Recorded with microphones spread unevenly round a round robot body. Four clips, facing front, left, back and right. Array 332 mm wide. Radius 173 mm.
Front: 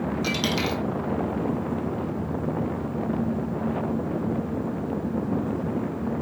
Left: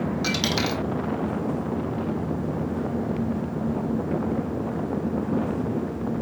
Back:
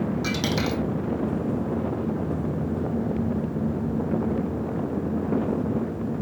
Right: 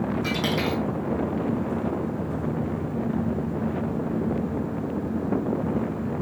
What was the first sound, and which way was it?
A dropped coin, 65° left.